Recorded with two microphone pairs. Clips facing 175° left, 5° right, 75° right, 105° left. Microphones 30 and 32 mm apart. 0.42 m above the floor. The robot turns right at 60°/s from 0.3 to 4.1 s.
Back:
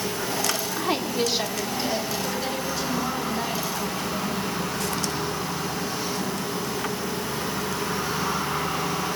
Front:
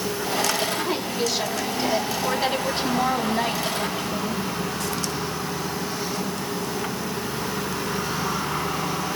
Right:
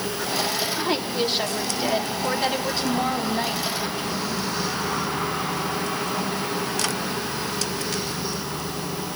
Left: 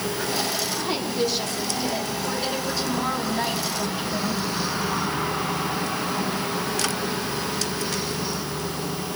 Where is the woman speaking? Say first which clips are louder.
Even, even; 160° right, 3.5 m; by 4.4 s 45° left, 3.5 m.